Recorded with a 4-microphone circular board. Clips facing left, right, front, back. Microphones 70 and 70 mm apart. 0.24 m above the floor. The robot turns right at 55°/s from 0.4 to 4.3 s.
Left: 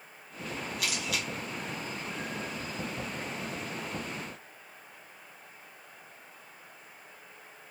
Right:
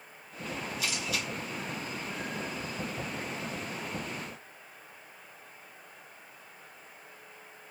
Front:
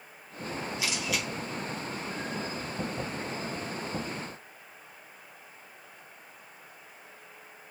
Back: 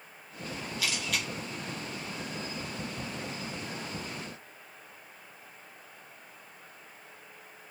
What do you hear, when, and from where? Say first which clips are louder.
0.8 s a camera shutter: left 1 dB, even; 65° left, 1.5 m; by 1.3 s 95° left, 1.5 m